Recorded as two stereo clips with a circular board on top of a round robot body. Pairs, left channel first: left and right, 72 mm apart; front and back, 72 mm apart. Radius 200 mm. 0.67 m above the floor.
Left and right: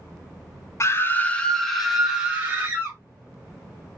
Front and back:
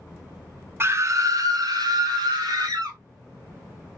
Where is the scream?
130° left, 0.7 m; by 3.0 s 155° right, 1.3 m.